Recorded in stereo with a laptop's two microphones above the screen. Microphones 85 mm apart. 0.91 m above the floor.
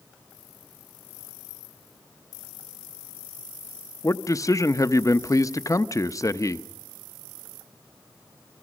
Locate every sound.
4.0 s a man speaking: 40° left (ahead or behind), 0.7 m